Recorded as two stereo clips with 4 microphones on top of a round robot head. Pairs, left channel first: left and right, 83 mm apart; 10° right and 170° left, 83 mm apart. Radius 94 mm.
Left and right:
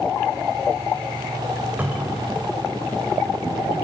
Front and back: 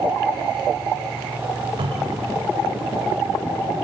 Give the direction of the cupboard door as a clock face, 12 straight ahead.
5 o'clock.